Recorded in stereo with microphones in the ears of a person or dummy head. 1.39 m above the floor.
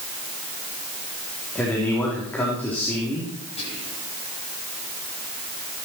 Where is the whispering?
30° left (ahead or behind), 8.5 m.